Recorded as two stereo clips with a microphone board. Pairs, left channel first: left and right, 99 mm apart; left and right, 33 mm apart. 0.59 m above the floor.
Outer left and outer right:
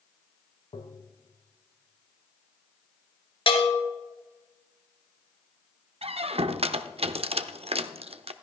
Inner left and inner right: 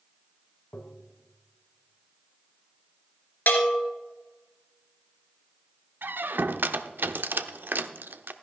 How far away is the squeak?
About 0.5 m.